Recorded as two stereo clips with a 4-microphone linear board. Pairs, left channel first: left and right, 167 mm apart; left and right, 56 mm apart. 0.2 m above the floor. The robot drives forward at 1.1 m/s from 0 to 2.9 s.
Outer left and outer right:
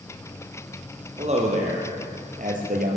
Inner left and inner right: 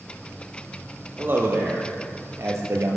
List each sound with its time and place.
1.2 s a man speaking: 40° right (ahead or behind), 4.5 m; by 3.0 s 60° right (ahead or behind), 3.5 m